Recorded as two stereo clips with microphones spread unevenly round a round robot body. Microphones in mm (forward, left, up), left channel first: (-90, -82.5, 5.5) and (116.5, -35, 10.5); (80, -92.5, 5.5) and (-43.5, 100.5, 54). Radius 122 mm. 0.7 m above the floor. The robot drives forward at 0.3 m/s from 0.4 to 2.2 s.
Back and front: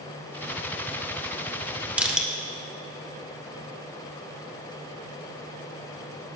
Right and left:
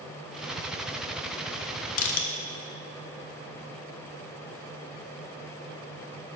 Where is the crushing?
70° right, 1.1 m; by 2.3 s 75° right, 1.1 m.